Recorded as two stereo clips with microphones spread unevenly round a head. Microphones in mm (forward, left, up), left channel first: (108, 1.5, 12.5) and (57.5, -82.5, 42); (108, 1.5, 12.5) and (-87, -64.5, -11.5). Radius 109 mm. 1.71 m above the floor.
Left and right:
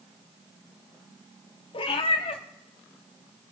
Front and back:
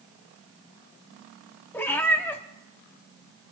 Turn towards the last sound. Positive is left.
turn(degrees=80)